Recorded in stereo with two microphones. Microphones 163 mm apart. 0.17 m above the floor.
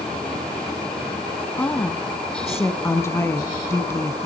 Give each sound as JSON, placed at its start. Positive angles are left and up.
{"t": 1.6, "sound": "a woman speaking", "side_deg": 15, "distance_m": 1.2}